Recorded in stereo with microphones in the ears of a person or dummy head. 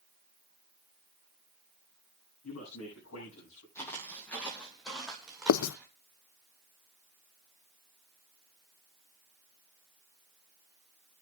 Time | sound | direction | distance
2.4 | a man speaking | 75° left (ahead or behind) | 9.5 m
3.8 | footsteps | 15° left (ahead or behind) | 2.5 m
5.5 | writing | 75° left (ahead or behind) | 0.5 m